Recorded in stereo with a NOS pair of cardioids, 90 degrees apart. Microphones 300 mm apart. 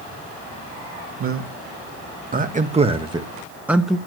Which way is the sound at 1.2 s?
50° right.